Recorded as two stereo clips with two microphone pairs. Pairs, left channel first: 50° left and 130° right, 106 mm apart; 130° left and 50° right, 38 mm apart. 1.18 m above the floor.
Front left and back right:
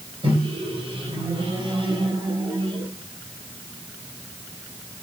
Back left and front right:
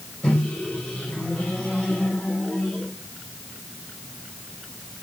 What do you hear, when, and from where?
0.2 s a microwave: 170° right, 3.5 m